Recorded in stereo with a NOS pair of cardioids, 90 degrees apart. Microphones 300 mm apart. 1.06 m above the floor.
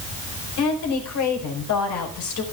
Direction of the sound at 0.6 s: 70° left.